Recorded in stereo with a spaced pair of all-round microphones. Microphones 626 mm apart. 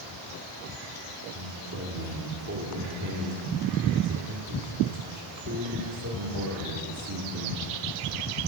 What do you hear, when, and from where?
1.3 s a man speaking: 25° right (ahead or behind), 2.5 m